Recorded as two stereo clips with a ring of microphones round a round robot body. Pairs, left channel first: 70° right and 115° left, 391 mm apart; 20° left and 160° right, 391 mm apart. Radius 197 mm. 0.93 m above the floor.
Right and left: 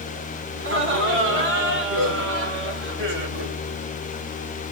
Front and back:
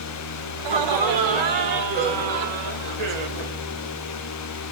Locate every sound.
0.6 s laughter: 175° left, 3.5 m